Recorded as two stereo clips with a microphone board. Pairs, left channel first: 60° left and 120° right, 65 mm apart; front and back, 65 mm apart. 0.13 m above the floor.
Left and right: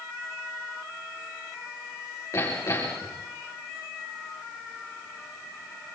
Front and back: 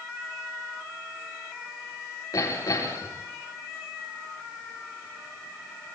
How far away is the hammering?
About 6 m.